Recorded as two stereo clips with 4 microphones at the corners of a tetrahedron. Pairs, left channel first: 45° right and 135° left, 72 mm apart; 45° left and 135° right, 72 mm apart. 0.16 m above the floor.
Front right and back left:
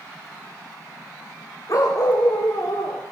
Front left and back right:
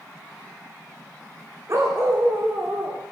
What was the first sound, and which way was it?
A dog barking, 85° right.